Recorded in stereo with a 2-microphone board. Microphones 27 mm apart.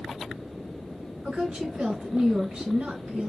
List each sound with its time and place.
1.2 s a woman speaking: 60° right (ahead or behind), 3 m